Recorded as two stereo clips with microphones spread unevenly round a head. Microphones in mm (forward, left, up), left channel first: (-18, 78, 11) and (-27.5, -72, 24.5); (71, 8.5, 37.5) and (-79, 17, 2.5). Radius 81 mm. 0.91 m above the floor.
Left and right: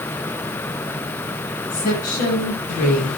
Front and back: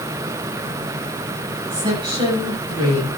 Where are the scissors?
I don't hear scissors.